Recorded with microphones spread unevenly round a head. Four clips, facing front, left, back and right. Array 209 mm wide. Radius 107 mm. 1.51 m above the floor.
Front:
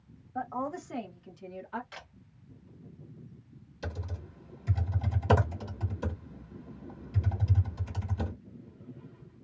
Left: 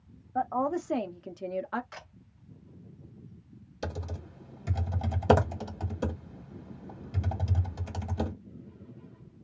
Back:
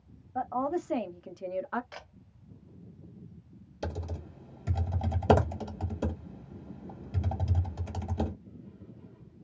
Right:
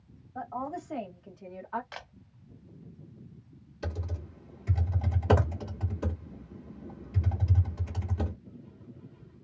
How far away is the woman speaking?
About 1.0 m.